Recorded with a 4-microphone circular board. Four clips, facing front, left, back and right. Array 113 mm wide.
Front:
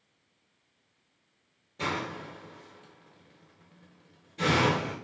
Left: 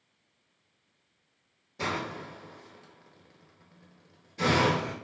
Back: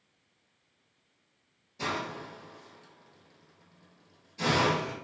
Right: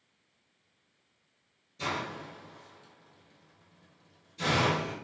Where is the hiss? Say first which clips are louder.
Left 2 dB, front 1 dB; 65° left, 0.8 m.